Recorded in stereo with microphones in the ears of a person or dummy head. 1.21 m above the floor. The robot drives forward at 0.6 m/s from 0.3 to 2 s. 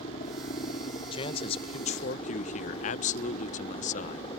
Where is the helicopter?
35° left (ahead or behind); by 4.4 s 30° left (ahead or behind).